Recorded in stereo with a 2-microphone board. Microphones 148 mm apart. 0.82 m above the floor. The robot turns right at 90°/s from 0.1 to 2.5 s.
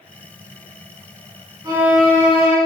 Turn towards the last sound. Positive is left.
turn(degrees=50)